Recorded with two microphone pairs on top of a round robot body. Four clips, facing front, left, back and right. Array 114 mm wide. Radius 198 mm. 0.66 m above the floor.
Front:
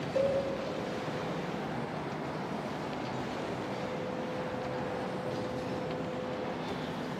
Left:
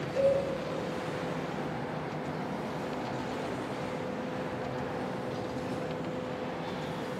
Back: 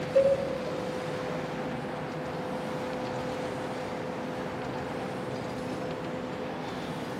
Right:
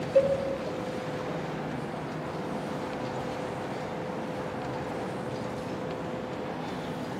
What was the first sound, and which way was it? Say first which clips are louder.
A cowbell: right 3 dB, back 7 dB; 115° right.